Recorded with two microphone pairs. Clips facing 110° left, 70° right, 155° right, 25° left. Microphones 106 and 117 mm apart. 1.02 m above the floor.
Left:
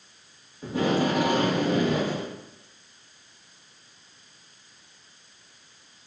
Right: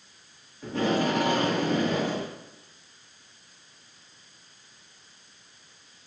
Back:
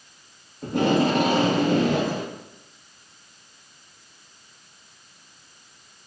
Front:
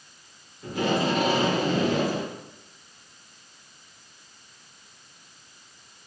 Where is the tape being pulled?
175° right, 1.7 m.